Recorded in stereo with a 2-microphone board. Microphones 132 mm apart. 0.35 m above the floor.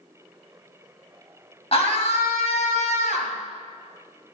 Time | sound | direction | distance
1.7 | a scream | 50° left (ahead or behind) | 2.5 m